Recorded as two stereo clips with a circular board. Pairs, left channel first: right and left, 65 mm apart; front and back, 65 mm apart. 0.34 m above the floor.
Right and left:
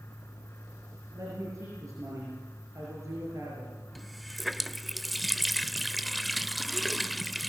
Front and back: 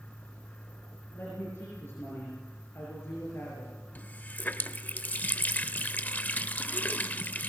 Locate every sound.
1.1 s a man speaking: 50° left, 6 m
4.0 s a running tap: straight ahead, 0.6 m